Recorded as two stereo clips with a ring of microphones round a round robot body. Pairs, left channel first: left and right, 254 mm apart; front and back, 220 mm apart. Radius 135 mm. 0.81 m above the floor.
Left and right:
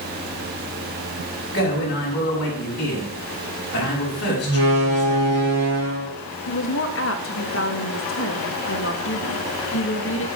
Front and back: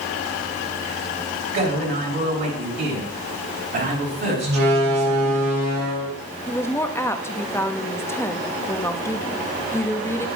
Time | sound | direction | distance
1.5 | a man speaking | 140° left | 5 m
4.5 | a door slam | 140° right | 6 m
6.5 | a woman speaking | 75° left | 1.4 m